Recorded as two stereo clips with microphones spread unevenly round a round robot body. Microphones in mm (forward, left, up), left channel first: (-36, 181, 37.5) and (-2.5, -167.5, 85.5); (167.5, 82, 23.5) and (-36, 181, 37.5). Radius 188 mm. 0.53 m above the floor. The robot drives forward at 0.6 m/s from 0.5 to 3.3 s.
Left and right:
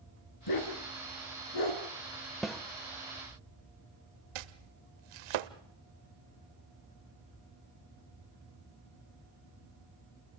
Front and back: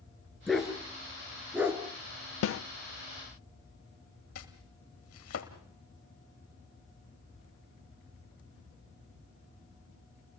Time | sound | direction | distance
0.5 | a dog barking | 65° left | 4 m
2.4 | a snare drum | 5° left | 0.7 m
4.3 | chopping | 75° right | 1.0 m